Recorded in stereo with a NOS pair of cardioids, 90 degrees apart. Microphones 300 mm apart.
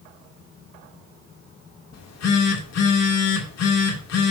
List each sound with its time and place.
1.9 s a phone buzzing: 60° left, 3.5 m